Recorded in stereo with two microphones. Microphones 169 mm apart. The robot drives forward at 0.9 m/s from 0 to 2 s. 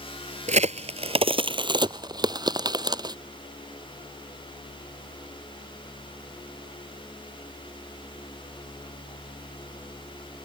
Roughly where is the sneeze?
No sneeze in this recording.